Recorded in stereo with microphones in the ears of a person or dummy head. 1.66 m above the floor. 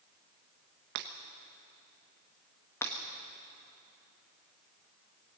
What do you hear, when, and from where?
0.9 s breaking glass: 50° right (ahead or behind), 1.2 m
2.8 s breaking glass: 10° left (ahead or behind), 1.3 m